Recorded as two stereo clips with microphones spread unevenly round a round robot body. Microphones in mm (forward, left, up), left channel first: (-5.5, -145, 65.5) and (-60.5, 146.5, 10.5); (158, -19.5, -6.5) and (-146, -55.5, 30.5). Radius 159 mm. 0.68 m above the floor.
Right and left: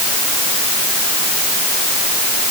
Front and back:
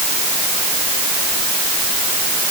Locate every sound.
Only background noise.